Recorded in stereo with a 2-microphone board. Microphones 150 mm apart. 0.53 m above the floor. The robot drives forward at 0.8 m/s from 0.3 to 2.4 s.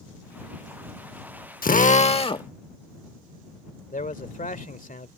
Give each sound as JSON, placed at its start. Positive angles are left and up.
{"t": 1.6, "sound": "a drill", "side_deg": 75}
{"t": 3.9, "sound": "a man speaking", "side_deg": 65}